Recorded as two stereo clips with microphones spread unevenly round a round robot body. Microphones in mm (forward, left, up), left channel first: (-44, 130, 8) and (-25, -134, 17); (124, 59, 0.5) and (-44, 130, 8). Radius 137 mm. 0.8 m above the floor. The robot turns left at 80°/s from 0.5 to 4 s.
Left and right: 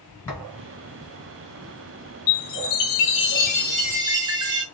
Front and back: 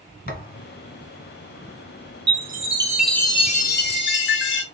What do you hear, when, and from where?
0.3 s a thud: 10° left, 2.0 m; by 0.7 s straight ahead, 2.0 m
2.3 s a chime: 130° left, 0.8 m; by 4.6 s 10° right, 0.8 m